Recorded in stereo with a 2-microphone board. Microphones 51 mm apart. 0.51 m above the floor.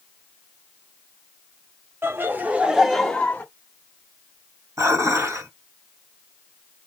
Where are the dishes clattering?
70° right (ahead or behind), 2 m.